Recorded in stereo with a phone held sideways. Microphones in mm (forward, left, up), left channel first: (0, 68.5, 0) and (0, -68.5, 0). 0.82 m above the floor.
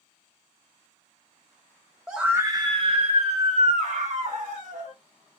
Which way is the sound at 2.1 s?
Centre (ahead or behind).